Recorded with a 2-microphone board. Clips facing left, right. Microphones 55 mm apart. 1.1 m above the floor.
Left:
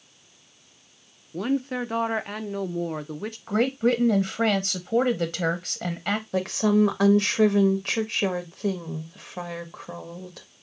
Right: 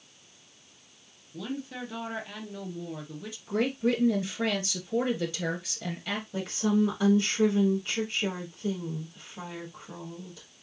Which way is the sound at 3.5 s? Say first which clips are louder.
Left 4 dB; 55° left (ahead or behind).